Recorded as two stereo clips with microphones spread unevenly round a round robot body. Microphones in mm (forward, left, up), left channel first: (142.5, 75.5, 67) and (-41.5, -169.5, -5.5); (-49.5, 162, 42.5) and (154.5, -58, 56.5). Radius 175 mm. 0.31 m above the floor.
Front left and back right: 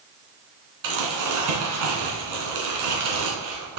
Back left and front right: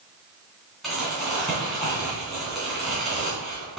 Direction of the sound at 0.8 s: 140° right.